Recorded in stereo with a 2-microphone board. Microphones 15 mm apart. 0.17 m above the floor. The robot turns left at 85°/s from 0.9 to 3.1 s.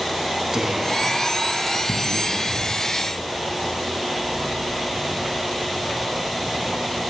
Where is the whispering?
105° right, 1.3 m; by 2.9 s 90° left, 1.3 m.